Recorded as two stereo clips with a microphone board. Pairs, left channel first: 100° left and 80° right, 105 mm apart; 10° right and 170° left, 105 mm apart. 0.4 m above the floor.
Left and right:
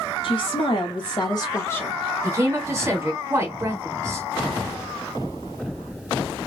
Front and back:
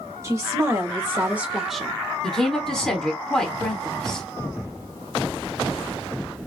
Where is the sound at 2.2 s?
90° right, 1.3 m.